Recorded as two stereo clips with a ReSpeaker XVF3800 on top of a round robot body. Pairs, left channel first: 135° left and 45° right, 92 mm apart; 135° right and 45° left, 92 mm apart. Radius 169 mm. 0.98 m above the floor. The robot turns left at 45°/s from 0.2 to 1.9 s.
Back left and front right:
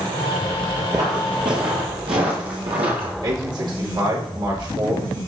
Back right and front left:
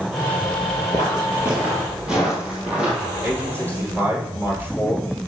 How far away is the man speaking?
About 4.5 m.